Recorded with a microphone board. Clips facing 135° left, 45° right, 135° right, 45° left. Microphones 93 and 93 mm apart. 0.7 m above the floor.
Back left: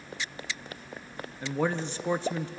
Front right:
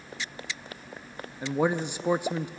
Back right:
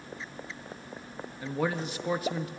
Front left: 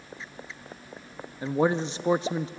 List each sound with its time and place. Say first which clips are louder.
1.4 s a man speaking: front right 3 dB, front left 6 dB; 15° left, 0.6 m